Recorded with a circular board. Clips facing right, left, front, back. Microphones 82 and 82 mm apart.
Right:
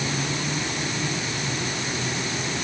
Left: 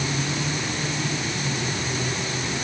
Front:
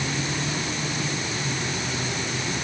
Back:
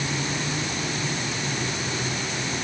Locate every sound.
Only background noise.